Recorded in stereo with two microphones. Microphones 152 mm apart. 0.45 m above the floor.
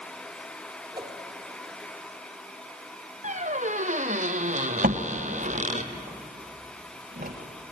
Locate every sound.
0.9 s a whoosh: 25° right (ahead or behind), 2.0 m
3.2 s a squeak: 55° right (ahead or behind), 1.4 m
4.8 s a door slam: 70° right (ahead or behind), 1.8 m